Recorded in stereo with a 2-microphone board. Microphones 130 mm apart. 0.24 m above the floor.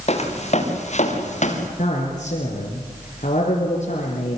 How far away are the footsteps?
About 6 m.